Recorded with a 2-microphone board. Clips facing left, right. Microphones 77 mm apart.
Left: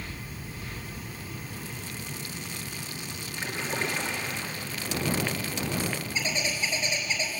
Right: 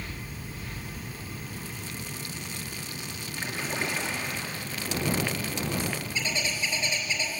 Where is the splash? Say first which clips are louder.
Left 1 dB; 5° right (ahead or behind), 3 m.